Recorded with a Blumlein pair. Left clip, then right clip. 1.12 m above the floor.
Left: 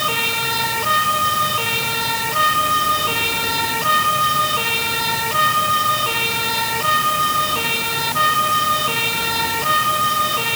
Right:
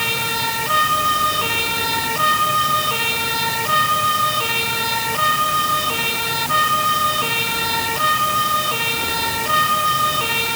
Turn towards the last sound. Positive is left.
No sound to turn to.